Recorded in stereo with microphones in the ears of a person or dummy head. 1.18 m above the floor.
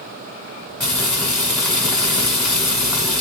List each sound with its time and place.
0.8 s frying: 5° left (ahead or behind), 1.4 m